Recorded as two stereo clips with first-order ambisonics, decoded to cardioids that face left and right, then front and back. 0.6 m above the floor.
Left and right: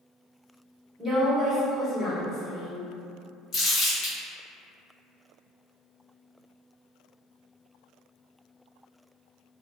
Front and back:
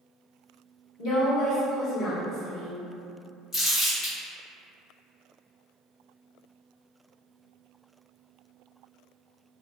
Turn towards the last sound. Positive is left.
turn(degrees=55)